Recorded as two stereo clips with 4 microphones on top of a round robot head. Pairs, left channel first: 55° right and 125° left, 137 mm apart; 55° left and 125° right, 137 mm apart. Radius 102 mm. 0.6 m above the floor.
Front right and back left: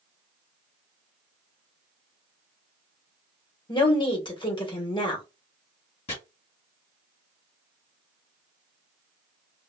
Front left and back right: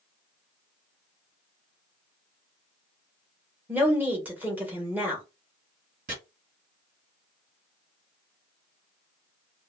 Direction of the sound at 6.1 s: 105° right.